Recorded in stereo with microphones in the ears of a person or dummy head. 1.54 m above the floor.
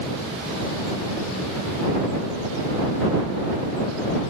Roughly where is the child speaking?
I don't hear a child speaking.